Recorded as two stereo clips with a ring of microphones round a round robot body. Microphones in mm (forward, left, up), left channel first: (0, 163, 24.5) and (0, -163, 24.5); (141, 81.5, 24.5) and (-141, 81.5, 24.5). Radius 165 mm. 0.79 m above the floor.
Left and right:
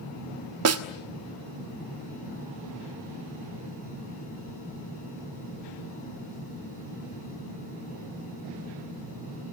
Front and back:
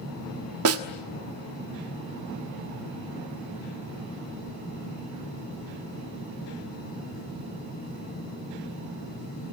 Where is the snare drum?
135° right, 1.3 m.